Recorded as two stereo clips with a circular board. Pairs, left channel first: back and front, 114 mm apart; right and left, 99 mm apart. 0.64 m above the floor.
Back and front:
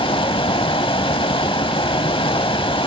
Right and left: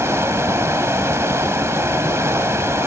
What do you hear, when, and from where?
0.0 s running water: 150° left, 0.7 m